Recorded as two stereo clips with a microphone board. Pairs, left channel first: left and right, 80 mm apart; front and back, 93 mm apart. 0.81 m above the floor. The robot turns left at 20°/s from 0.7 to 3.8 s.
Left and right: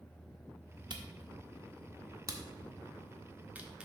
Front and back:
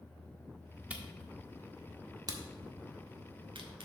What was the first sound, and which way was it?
A camera shutter, 105° right.